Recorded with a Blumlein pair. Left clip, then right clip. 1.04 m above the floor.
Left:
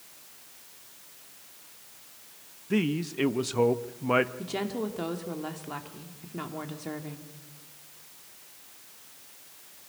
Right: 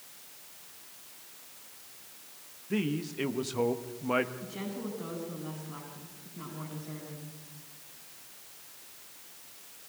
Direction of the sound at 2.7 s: 15° left.